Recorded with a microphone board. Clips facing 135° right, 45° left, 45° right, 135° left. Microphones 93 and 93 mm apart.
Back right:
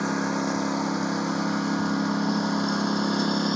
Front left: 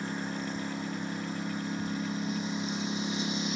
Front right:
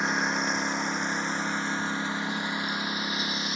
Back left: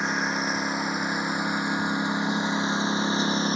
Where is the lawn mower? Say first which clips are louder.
Back right 9 dB, back left 1 dB; 135° right; by 3.6 s 165° right.